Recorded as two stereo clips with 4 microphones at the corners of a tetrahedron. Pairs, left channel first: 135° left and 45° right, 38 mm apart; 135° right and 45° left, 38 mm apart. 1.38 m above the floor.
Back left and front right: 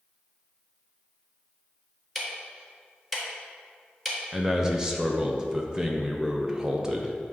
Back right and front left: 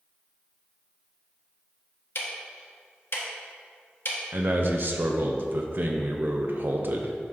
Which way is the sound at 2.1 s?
135° right.